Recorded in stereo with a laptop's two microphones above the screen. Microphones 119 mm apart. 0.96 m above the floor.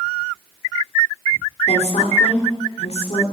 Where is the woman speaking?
70° left (ahead or behind), 3.5 m.